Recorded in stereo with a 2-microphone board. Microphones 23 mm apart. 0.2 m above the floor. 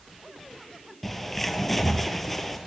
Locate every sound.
1.0 s a bird: 10° left (ahead or behind), 0.8 m